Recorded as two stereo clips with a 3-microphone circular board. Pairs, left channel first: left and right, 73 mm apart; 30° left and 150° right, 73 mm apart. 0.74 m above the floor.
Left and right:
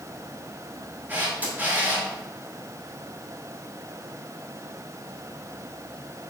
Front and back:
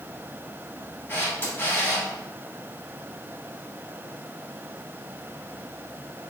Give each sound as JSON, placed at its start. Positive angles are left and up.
{"t": 1.1, "sound": "a camera shutter", "azimuth_deg": -25, "distance_m": 3.0}